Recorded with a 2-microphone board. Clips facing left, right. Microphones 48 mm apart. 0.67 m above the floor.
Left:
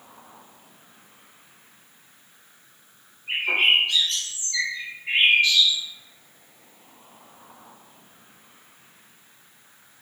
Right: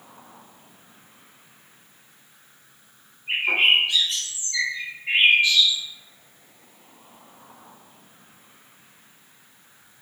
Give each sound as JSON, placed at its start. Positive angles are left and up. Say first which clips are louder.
{"t": 3.3, "sound": "a bird", "louder": "right 1 dB", "side_deg": -15, "distance_m": 1.6}